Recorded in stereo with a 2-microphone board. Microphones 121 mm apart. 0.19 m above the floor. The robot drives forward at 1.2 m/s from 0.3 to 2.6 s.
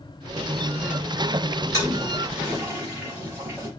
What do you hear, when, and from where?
1.7 s a toilet flushing: 25° right (ahead or behind), 3.5 m; by 3.7 s 20° right (ahead or behind), 4.5 m